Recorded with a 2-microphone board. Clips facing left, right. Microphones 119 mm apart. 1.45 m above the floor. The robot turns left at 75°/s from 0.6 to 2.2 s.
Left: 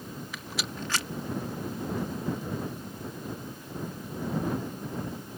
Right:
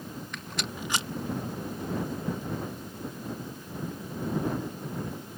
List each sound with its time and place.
0.3 s a rattle: 5° left (ahead or behind); by 1.1 s 30° right (ahead or behind)